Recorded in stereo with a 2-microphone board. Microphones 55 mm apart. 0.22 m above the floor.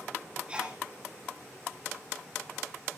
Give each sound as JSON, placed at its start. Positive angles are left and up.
{"t": 0.5, "sound": "a sneeze", "side_deg": -20, "distance_m": 7.0}